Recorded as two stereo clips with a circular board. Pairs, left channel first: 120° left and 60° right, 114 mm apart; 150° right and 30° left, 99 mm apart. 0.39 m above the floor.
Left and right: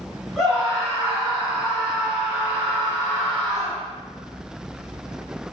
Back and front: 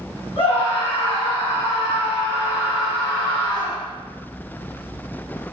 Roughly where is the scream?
Behind right.